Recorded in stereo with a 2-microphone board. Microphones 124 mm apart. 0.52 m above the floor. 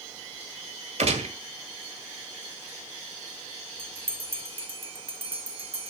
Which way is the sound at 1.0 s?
60° right (ahead or behind).